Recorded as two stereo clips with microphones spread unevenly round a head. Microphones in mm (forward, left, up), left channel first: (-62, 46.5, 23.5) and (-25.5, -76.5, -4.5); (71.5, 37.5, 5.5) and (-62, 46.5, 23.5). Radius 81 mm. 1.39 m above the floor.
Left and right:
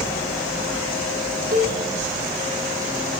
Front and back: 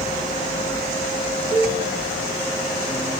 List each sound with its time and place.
1.5 s a cowbell: 95° right, 9 m